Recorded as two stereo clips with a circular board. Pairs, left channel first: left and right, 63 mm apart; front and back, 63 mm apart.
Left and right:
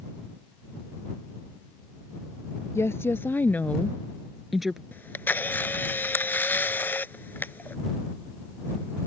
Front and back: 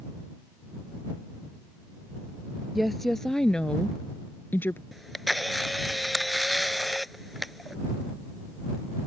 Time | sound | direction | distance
2.8 | a woman speaking | 90° left | ?
4.9 | a camera shutter | 90° left | ?